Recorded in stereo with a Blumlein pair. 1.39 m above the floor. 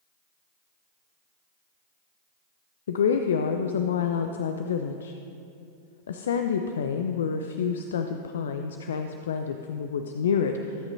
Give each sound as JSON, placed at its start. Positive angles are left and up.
{"t": 2.9, "sound": "a woman speaking", "azimuth_deg": 65, "distance_m": 0.5}